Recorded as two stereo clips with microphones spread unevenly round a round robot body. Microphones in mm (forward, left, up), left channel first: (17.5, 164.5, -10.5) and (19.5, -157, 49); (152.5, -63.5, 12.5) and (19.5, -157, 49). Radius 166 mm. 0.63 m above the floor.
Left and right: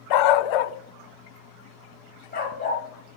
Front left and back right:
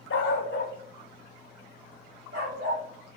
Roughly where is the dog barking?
Ahead left.